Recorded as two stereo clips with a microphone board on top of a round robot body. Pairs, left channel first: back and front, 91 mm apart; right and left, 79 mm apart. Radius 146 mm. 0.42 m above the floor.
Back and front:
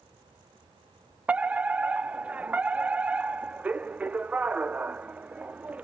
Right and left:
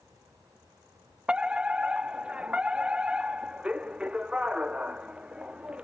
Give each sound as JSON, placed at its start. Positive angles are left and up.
{"t": 1.3, "sound": "a fire alarm", "azimuth_deg": 40}